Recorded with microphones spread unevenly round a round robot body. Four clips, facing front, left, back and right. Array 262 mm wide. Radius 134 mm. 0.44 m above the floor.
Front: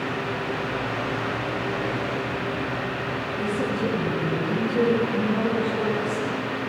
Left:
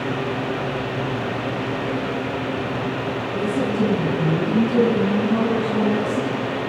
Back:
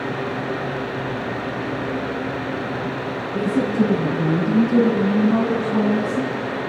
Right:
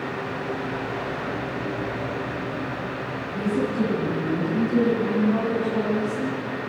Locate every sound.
3.3 s a woman speaking: 175° left, 6 m; by 6.4 s 150° left, 2.5 m